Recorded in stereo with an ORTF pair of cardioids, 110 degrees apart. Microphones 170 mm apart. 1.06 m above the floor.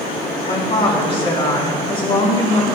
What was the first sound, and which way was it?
A woman speaking, 30° left.